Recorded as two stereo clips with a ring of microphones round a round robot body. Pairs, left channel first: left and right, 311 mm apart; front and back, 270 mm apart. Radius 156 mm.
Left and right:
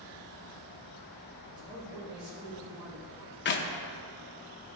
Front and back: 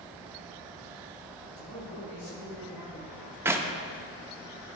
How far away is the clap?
About 0.5 m.